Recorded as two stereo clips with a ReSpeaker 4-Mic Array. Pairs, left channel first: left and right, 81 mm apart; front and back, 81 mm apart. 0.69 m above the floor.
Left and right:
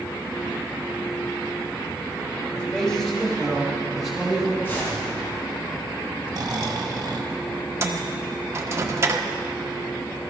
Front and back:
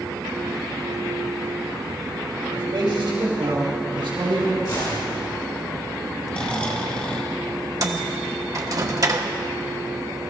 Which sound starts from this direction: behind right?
A microwave, at 7.8 s.